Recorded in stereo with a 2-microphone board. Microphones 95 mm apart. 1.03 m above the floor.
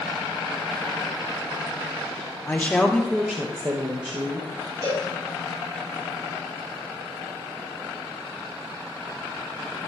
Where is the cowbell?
50° right (ahead or behind), 5.5 m.